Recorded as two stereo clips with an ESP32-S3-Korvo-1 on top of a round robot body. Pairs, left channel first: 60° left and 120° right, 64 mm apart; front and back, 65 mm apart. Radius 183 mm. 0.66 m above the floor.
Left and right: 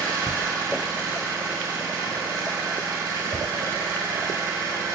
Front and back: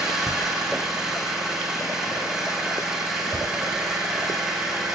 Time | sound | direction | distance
0.0 | an engine running | 100° right | 8 m